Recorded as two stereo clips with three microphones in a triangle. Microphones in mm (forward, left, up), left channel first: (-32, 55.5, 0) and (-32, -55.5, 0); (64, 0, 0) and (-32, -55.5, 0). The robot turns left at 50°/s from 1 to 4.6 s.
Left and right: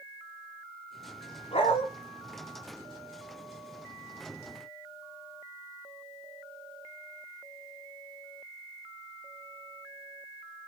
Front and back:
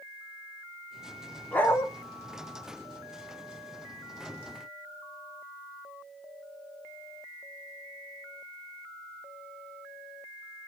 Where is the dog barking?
105° left, 0.9 m; by 1.9 s 90° left, 0.9 m.